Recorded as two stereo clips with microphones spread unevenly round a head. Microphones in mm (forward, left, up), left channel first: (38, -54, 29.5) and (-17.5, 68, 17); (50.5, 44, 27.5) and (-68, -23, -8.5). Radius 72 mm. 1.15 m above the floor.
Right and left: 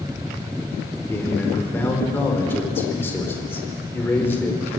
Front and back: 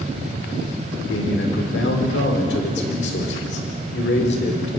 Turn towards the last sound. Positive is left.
turn(degrees=10)